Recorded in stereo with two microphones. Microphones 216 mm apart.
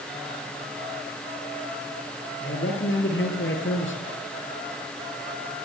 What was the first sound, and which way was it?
A man speaking, 80° left.